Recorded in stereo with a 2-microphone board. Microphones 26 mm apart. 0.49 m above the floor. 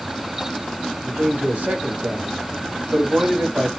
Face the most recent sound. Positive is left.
turn(degrees=-70)  # may be behind; listen again after turning